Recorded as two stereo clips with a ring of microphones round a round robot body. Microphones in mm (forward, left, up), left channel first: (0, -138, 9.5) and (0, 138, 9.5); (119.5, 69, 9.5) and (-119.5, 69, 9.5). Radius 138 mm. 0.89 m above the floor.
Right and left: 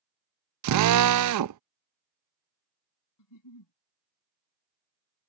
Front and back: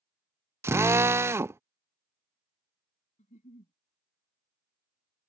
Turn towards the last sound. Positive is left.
turn(degrees=-65)